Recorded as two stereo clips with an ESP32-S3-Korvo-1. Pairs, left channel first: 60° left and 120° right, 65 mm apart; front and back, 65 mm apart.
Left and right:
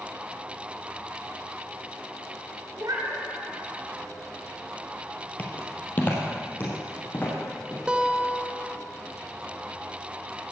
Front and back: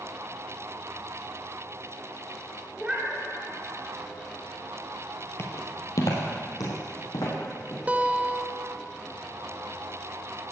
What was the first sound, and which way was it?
A cat meowing, 105° right.